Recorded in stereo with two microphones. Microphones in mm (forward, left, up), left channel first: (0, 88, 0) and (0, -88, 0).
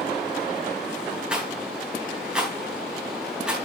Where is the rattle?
5° right (ahead or behind), 4 m.